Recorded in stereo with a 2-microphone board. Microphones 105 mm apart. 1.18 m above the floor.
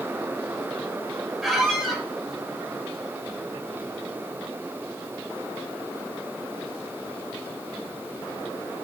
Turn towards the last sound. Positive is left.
turn(degrees=0)  # may be behind; listen again after turning